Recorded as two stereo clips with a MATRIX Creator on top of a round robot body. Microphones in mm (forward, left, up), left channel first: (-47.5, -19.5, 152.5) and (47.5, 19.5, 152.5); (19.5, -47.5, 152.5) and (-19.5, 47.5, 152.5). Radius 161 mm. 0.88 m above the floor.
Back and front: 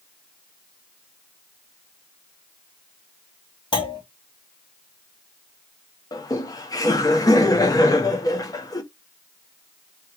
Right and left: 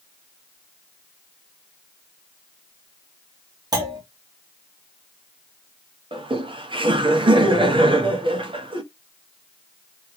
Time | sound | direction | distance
3.7 | a clunk | 165° left | 2.5 m
6.1 | laughter | 150° left | 1.4 m